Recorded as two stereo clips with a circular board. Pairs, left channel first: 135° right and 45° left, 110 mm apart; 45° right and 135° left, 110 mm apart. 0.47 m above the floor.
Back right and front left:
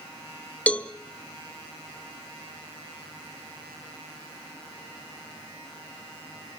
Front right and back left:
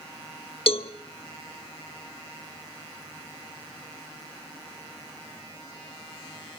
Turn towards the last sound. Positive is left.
turn(degrees=-60)